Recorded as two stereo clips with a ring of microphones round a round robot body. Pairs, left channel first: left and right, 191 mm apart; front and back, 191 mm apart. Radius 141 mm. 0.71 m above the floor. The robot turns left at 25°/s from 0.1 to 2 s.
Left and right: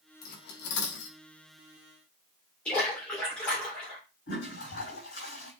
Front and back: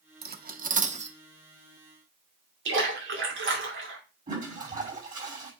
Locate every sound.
0.2 s cutlery clinking: 145° left, 0.9 m; by 1.2 s 120° left, 0.9 m
2.6 s a splash: 175° left, 2 m
4.3 s a toilet flushing: 130° left, 5.5 m